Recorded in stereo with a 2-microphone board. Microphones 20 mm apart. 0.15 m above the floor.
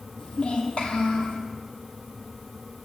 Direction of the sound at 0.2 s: 45° left (ahead or behind).